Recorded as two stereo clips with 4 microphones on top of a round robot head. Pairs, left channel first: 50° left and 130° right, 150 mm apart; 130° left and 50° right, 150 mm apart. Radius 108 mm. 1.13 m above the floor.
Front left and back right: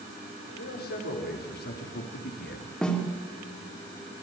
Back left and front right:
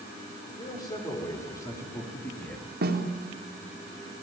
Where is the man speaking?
60° left, 5 m; by 2.7 s 45° left, 2.5 m.